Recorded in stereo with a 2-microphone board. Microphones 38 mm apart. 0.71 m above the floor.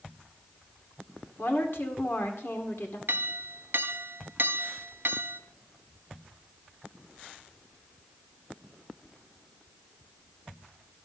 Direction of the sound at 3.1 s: 60° right (ahead or behind).